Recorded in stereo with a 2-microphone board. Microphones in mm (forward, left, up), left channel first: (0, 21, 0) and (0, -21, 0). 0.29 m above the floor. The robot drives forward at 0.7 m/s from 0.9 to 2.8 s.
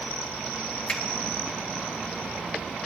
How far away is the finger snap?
About 1.5 m.